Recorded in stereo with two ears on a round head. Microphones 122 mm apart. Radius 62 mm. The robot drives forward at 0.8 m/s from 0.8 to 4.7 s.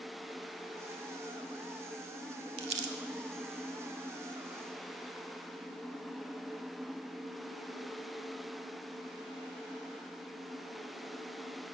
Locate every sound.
2.6 s crumpling: 40° right (ahead or behind), 0.6 m; by 3.0 s 60° right (ahead or behind), 0.5 m